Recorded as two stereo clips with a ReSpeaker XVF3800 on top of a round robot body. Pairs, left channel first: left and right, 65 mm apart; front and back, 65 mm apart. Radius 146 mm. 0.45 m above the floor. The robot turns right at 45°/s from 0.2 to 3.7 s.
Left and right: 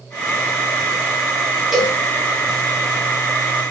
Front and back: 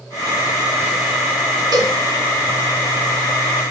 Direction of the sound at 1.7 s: 175° right.